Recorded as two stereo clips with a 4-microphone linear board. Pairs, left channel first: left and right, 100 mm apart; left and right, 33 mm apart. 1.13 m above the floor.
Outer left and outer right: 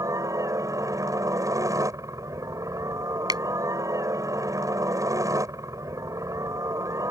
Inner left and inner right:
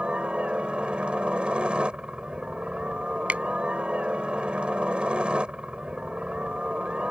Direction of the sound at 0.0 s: 35° right (ahead or behind).